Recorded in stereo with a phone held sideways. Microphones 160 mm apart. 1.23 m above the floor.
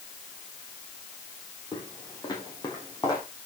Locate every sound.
1.7 s footsteps: 30° left (ahead or behind), 2.5 m; by 3.2 s 20° left (ahead or behind), 3.5 m